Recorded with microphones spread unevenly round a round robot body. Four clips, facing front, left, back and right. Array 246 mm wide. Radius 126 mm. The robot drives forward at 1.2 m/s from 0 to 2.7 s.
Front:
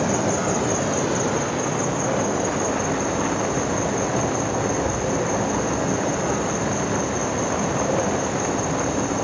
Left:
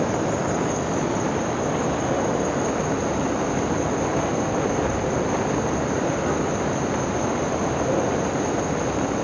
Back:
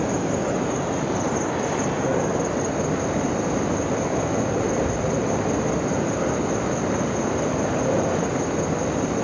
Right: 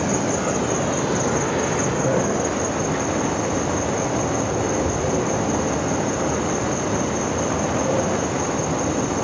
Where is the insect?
25° right, 2 m; by 9.2 s 140° right, 1.6 m.